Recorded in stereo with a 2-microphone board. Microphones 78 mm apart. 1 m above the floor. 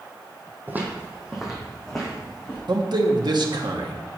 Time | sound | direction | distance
0.7 | footsteps | 25° right (ahead or behind) | 2 m
2.7 | a man speaking | 65° right (ahead or behind) | 1.3 m